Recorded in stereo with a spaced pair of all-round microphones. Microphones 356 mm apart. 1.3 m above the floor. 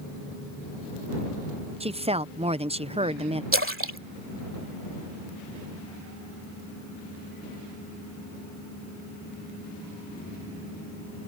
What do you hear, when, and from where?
1.8 s a woman speaking: 15° right (ahead or behind)
3.5 s a splash: 35° right (ahead or behind)